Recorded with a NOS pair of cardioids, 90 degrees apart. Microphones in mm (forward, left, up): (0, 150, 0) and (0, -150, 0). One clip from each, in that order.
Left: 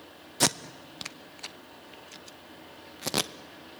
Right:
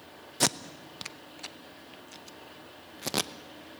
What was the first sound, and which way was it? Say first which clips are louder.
Tape being pulled: left 2 dB; 5° left.